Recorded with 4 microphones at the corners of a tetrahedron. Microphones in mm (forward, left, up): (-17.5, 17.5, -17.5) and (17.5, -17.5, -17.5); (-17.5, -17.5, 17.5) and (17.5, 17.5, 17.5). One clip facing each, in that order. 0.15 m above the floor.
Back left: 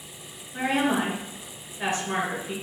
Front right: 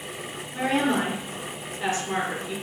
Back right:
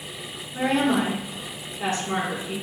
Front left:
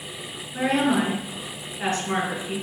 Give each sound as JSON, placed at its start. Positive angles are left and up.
{"t": 0.5, "sound": "a woman speaking", "azimuth_deg": 75, "distance_m": 1.8}